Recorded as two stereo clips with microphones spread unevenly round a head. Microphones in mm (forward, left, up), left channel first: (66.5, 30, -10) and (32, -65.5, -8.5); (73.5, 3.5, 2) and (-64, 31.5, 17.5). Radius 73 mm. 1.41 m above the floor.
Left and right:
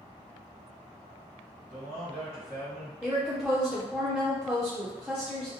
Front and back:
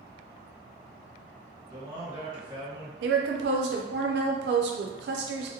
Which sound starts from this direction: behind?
A woman speaking, at 3.0 s.